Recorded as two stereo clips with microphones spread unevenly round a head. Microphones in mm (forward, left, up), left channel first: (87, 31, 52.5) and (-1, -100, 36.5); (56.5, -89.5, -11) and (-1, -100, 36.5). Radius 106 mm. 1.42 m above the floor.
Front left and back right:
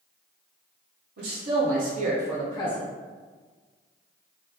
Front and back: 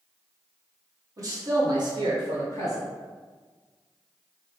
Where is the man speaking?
140° right, 1.3 m; by 2.9 s 105° left, 0.7 m.